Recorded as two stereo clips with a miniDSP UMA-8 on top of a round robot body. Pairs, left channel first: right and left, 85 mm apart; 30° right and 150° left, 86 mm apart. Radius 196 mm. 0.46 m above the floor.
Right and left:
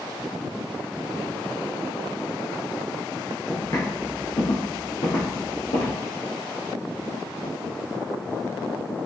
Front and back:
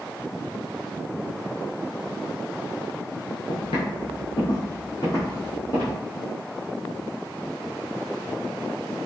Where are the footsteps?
25° right, 0.7 m; by 6.0 s 100° right, 1.4 m.